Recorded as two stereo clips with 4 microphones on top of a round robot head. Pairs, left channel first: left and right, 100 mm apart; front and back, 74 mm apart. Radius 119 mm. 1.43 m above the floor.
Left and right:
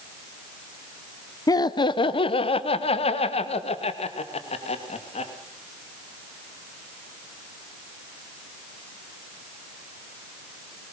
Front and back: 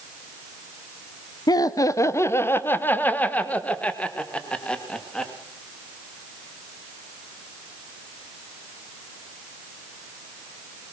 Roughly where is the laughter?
Ahead left.